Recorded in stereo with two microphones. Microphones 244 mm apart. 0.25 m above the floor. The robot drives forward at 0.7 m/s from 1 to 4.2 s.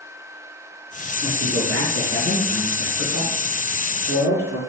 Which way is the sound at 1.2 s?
60° right (ahead or behind).